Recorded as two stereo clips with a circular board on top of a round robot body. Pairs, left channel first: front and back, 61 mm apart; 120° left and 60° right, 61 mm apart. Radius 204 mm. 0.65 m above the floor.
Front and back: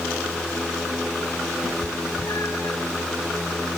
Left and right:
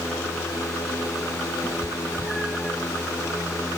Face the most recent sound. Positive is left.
turn(degrees=20)